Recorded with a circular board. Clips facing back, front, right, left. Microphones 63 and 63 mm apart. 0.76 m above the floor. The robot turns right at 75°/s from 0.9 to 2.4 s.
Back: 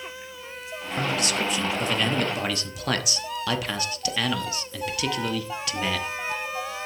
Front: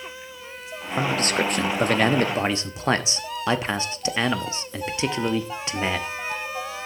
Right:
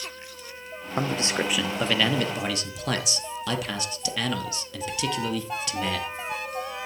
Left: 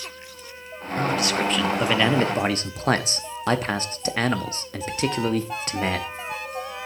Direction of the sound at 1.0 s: 55° right.